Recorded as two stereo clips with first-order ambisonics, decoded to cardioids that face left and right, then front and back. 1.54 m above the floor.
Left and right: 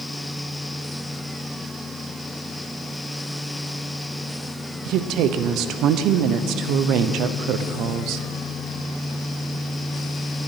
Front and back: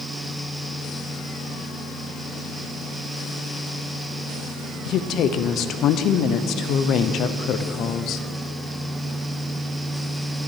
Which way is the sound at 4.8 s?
50° right.